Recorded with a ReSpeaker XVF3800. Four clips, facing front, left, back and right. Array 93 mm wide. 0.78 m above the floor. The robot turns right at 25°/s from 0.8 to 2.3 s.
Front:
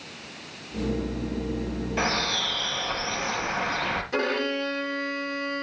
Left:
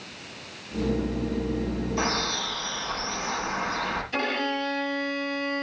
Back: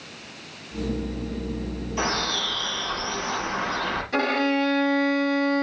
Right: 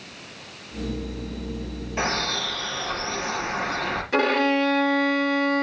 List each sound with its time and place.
2.0 s a bird: 50° right, 5.5 m; by 4.0 s 40° right, 5.5 m
4.1 s a violin: 85° right, 2.0 m